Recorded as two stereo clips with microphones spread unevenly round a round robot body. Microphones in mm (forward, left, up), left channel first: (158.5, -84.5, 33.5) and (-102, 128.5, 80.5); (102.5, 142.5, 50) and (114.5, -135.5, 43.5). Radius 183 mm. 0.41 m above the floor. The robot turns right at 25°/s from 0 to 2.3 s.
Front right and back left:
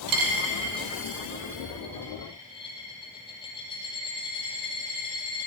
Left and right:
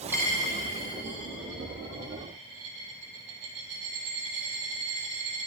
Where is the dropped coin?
175° right, 1.5 m; by 5.5 s 120° right, 1.5 m.